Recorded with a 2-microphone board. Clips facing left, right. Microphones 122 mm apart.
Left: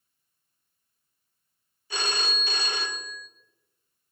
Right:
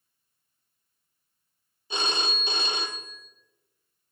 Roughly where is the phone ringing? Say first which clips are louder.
Right 1 dB; right.